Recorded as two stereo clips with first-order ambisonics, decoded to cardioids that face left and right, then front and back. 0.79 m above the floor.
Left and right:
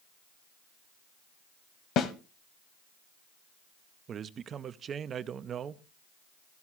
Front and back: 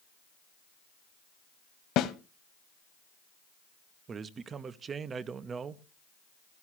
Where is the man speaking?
130° right, 0.5 m.